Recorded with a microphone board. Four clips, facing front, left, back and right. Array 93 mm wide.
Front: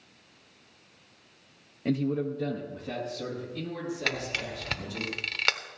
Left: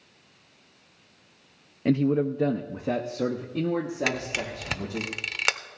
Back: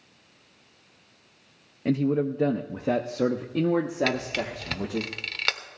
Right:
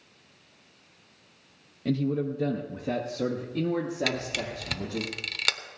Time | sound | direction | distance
1.9 | a man speaking | 110° left | 0.6 m
4.1 | a camera shutter | 90° left | 1.0 m